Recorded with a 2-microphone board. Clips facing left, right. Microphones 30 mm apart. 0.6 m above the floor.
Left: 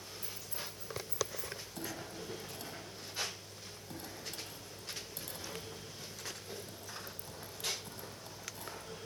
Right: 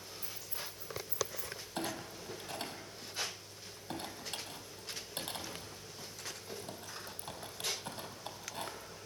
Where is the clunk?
50° right (ahead or behind), 3.5 m.